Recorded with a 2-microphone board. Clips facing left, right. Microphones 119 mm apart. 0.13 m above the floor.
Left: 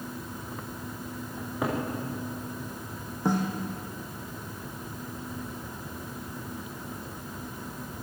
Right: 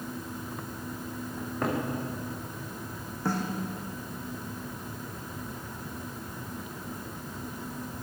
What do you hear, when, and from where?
1.4 s a cupboard door: 10° left (ahead or behind), 6.5 m
3.2 s a snare drum: 20° left (ahead or behind), 3.5 m